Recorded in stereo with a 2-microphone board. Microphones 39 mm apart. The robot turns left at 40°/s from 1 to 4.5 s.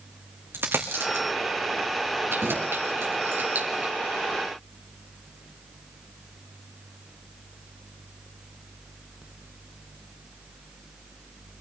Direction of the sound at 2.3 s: 70° right (ahead or behind).